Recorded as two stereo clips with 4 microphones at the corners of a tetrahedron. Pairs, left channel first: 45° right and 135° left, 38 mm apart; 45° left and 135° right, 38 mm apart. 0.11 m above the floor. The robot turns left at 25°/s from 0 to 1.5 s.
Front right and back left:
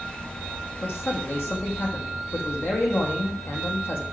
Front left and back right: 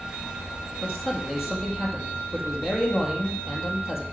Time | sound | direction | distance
0.8 | a man speaking | 40° right | 3.5 m